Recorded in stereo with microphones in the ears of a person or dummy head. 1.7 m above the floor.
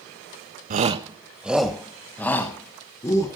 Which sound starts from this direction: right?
A shout, at 0.7 s.